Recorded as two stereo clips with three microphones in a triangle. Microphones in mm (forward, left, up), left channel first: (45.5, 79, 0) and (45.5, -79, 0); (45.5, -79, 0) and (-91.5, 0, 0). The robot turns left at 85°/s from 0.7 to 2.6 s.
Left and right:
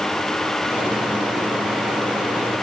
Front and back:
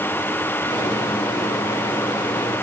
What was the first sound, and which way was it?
Only background noise.